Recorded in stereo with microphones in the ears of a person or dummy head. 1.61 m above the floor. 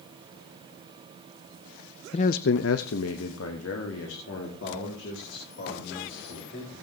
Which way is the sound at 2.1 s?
30° left (ahead or behind).